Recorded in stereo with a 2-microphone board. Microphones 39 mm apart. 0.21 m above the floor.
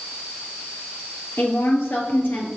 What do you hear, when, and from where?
1.4 s a woman speaking: 70° left (ahead or behind), 3.5 m